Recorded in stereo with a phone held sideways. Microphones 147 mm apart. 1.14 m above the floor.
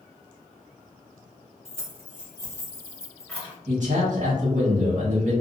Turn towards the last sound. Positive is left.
turn(degrees=-60)  # may be behind; listen again after turning